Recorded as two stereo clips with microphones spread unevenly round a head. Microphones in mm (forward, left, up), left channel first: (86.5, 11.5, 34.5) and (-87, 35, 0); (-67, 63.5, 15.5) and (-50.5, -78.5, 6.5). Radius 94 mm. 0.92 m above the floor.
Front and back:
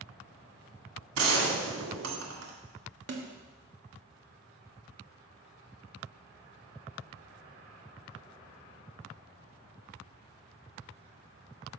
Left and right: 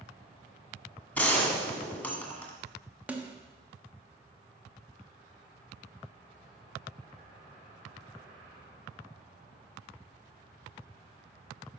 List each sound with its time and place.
1.1 s a gunshot: 175° left, 1.8 m
3.1 s a snare drum: 165° right, 1.1 m